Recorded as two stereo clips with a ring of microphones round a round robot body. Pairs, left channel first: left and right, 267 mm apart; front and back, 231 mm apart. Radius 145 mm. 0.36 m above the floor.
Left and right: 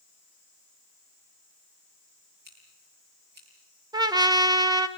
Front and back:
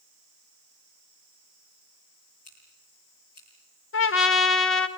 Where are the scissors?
35° right, 10 m.